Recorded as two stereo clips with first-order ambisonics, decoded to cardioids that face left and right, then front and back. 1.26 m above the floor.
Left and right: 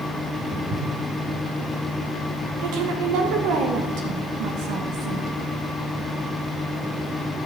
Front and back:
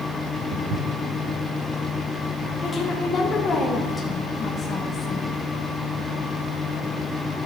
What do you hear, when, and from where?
0.5 s footsteps: 140° right, 3 m
2.6 s a woman speaking: 70° right, 1.4 m